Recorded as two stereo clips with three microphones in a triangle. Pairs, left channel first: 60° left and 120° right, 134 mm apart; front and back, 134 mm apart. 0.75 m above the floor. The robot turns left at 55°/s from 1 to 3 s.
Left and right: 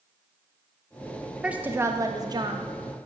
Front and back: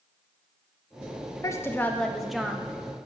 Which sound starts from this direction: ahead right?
A woman speaking, at 1.4 s.